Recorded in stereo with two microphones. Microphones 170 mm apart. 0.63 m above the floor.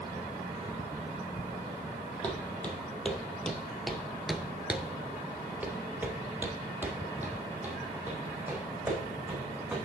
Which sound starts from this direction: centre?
Footsteps, at 2.2 s.